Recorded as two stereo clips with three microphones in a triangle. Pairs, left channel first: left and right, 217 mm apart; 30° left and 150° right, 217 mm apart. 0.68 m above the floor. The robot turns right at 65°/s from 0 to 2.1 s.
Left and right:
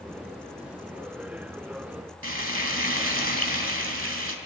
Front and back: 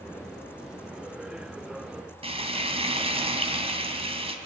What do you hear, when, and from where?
2.2 s frying: 85° right, 2.5 m